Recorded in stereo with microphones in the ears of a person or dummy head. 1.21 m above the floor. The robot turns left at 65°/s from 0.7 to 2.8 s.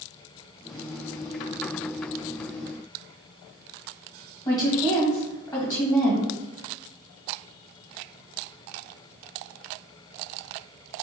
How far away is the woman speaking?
About 1.5 m.